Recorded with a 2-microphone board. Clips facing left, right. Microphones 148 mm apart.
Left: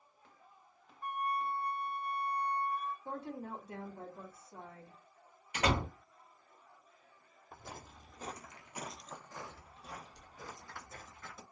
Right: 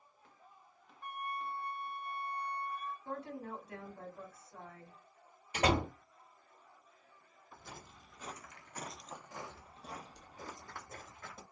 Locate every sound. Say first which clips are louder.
1.0 s a flute: left 6 dB; 40° left (ahead or behind), 0.7 m
3.0 s a woman speaking: left 1 dB; 30° left (ahead or behind), 0.9 m
5.5 s a door slam: right 2 dB; 30° right (ahead or behind), 1.2 m
7.5 s footsteps: left 3 dB; 55° left (ahead or behind), 0.9 m; by 11.4 s 50° right (ahead or behind), 1.6 m